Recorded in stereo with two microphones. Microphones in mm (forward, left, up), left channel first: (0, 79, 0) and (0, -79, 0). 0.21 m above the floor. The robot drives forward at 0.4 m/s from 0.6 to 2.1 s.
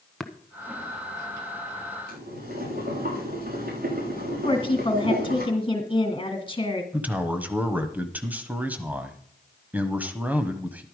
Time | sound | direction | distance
0.2 | tapping | centre (ahead or behind) | 1.0 m
2.1 | boiling | 75° right (ahead or behind) | 6.5 m
4.4 | a woman speaking | 30° left (ahead or behind) | 2.5 m
6.9 | a man speaking | 10° right (ahead or behind) | 1.1 m